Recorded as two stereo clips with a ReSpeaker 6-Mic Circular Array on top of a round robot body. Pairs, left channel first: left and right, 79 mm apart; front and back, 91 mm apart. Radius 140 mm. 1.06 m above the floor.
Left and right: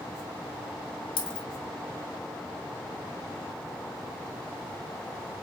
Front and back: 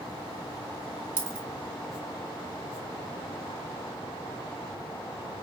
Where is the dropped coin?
110° left, 1.7 m.